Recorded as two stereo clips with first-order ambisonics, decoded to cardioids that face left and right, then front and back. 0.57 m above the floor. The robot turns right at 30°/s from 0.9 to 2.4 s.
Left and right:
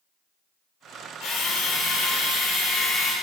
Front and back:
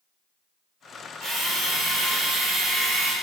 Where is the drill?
110° left, 1.6 m; by 3.1 s 145° left, 1.6 m.